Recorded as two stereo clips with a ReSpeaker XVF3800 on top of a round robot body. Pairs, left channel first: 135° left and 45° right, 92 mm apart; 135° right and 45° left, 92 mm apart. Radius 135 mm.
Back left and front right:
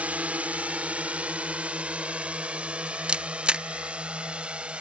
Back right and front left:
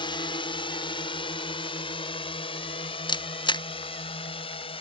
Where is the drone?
120° right; by 4.8 s 125° right.